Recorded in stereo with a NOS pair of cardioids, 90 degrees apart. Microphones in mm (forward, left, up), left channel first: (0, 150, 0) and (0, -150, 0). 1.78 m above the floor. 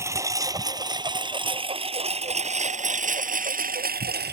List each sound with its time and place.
0.0 s a lawn mower: 10° right; by 4.3 s 35° right